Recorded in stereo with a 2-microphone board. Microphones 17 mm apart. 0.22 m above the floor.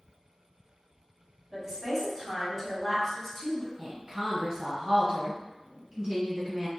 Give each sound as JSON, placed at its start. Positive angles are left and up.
{"t": 1.5, "sound": "a woman speaking", "side_deg": -25, "distance_m": 1.9}
{"t": 3.8, "sound": "a woman speaking", "side_deg": -40, "distance_m": 1.4}